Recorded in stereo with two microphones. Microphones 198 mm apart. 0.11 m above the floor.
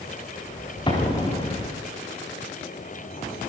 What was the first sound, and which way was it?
An explosion, 25° left (ahead or behind).